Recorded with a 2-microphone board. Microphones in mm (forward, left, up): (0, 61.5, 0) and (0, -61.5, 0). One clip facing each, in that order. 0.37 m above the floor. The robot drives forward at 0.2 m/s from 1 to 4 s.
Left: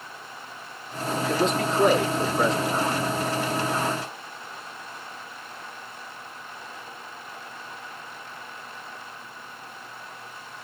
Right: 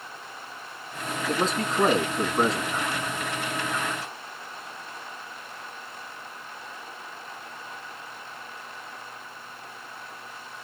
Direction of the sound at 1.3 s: 40° right (ahead or behind).